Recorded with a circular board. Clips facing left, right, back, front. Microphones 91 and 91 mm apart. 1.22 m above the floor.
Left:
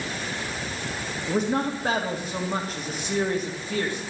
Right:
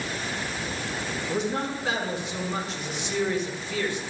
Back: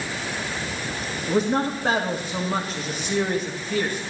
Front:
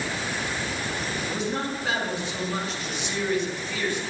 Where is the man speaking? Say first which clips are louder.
Left 4 dB, back 10 dB; 135° left, 2.5 m.